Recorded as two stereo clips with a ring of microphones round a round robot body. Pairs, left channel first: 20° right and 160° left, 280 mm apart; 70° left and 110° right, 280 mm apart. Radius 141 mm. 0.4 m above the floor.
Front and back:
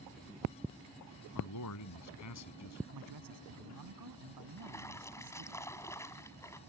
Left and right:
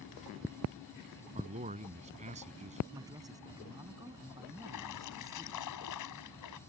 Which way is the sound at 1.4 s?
45° right.